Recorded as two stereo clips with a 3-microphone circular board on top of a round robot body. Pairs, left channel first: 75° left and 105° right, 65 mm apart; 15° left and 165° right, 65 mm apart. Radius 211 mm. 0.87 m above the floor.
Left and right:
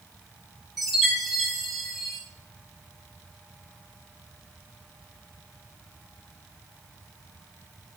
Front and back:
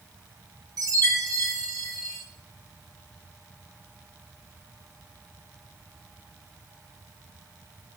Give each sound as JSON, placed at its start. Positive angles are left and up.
{"t": 0.8, "sound": "a chime", "azimuth_deg": 165, "distance_m": 5.5}